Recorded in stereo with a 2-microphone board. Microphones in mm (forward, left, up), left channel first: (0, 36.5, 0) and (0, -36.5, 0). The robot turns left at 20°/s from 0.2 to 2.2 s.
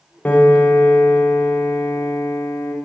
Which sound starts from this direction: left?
A piano, at 0.2 s.